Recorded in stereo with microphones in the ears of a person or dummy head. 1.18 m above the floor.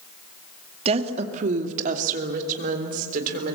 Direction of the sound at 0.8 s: 35° right (ahead or behind).